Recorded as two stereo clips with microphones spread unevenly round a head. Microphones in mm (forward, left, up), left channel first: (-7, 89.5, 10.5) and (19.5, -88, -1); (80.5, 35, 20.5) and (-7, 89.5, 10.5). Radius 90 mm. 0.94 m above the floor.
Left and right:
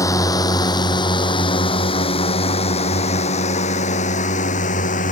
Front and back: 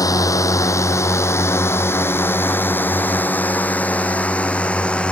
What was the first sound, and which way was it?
A drone, 25° left.